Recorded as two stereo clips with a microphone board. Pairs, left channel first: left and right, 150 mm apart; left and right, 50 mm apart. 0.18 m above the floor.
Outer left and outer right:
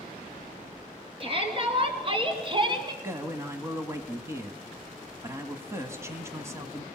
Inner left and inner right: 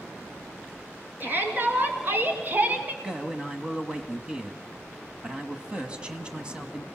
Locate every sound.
1.2 s a shout: 35° right (ahead or behind), 3.5 m; by 2.9 s 30° right (ahead or behind), 1.9 m
3.0 s a man speaking: 20° right (ahead or behind), 1.4 m